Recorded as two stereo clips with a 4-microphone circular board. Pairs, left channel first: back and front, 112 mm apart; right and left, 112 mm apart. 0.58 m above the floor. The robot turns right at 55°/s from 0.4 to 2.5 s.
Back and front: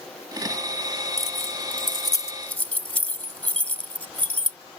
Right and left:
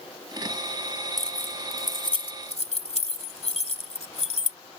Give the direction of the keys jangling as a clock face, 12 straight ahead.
6 o'clock.